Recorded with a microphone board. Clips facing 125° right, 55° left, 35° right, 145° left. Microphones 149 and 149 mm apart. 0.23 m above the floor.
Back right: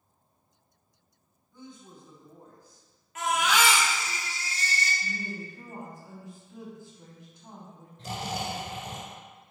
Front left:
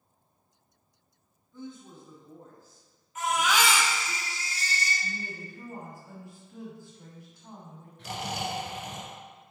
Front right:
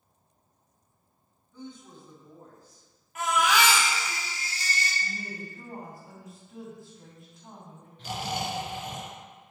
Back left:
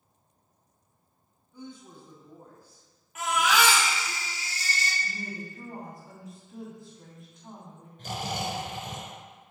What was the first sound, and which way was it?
A woman speaking, 160° right.